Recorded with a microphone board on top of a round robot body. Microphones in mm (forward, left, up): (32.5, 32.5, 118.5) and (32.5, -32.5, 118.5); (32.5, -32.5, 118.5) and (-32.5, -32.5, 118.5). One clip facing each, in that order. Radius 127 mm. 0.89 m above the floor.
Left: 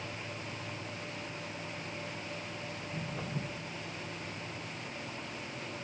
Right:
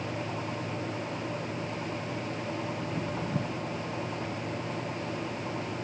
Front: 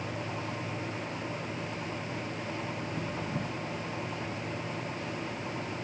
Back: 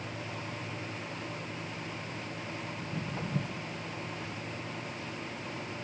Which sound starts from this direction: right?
Footsteps, at 2.8 s.